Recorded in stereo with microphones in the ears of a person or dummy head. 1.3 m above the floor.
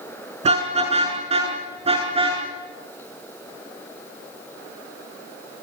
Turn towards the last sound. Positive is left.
turn(degrees=-25)  # may be behind; listen again after turning